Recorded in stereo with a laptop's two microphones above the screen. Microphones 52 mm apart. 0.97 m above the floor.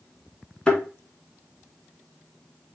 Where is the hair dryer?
No hair dryer in this recording.